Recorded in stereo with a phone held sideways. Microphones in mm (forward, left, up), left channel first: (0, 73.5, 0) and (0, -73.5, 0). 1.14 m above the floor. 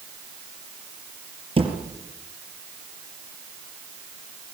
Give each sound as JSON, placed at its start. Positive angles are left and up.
{"t": 1.6, "sound": "a thud", "side_deg": -40, "distance_m": 5.5}